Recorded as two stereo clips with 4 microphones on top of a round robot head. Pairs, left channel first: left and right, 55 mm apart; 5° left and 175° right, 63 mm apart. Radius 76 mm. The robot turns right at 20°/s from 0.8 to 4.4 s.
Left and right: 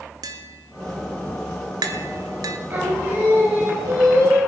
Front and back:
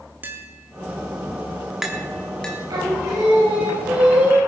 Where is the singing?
145° right, 4.5 m; by 4.4 s 115° right, 4.5 m.